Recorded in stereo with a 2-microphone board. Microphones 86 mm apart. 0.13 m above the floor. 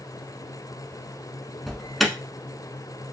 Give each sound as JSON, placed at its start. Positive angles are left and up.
{"t": 1.7, "sound": "an alarm", "side_deg": 0, "distance_m": 0.7}